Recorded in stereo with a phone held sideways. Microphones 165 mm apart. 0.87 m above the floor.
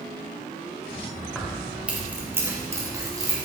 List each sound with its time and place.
1.4 s keys jangling: centre (ahead or behind), 2.5 m; by 3.5 s 25° right (ahead or behind), 3.5 m